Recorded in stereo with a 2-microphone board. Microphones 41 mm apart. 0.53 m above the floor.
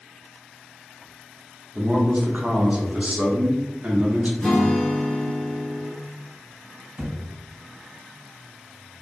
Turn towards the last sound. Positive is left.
turn(degrees=-35)  # may be behind; listen again after turning